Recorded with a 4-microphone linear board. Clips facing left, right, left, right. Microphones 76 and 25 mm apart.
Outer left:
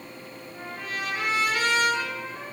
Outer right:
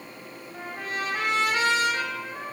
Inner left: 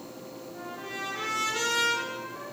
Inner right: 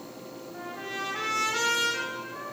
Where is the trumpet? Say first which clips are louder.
Outer right 2 dB, inner right 2 dB; 30° right (ahead or behind), 1.4 m.